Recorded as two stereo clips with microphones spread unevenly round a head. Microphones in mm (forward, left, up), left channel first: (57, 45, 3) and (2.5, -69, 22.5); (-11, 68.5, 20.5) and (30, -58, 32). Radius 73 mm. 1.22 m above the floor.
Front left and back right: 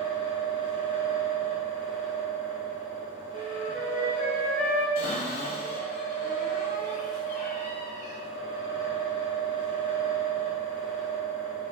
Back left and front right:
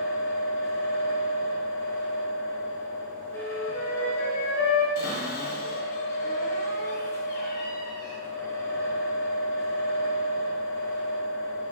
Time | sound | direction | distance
0.0 | a fan | straight behind | 1.0 m
3.3 | a flute | 140° right | 1.7 m
5.0 | a cupboard door | 105° left | 2 m